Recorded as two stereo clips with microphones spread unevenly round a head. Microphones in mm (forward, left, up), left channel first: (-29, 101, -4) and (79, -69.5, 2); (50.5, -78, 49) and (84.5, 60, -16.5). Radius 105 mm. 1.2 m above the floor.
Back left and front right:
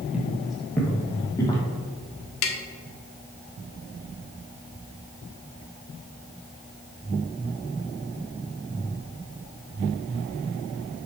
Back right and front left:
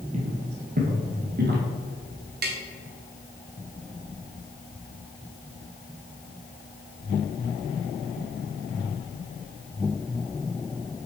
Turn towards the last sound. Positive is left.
turn(degrees=135)